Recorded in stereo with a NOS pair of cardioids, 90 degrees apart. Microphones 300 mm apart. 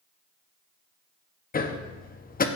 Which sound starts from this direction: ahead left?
Hammering, at 1.5 s.